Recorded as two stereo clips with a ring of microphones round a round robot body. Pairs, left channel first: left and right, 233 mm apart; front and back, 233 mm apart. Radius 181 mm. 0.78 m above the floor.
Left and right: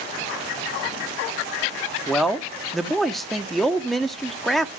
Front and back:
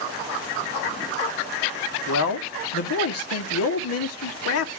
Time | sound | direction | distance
2.1 | a man speaking | straight ahead | 1.4 m